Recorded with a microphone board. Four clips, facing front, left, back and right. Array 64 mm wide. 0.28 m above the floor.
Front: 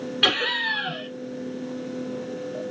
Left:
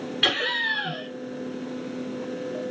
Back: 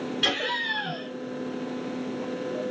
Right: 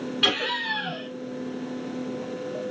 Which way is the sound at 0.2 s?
5° right.